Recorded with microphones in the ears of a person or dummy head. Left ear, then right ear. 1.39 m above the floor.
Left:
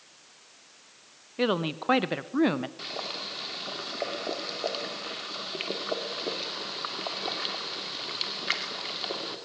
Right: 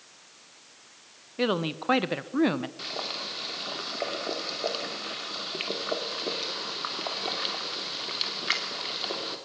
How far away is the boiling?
About 2.5 m.